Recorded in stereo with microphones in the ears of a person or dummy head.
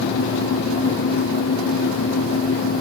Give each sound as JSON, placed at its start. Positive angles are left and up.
{"t": 0.0, "sound": "a fan", "side_deg": 80}